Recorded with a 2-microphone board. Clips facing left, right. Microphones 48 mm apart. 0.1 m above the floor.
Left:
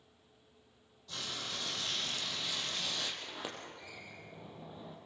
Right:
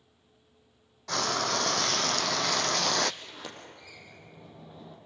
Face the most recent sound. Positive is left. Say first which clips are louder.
# even
turn(degrees=15)  # may be behind; listen again after turning